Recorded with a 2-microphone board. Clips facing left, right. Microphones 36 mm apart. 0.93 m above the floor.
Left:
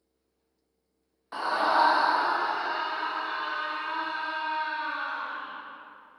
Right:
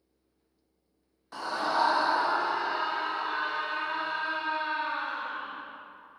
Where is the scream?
25° left (ahead or behind), 0.5 m; by 5.6 s centre (ahead or behind), 3 m.